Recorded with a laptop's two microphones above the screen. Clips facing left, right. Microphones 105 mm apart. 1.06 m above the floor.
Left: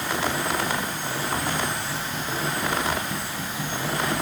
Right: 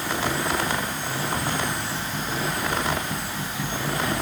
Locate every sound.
Only background noise.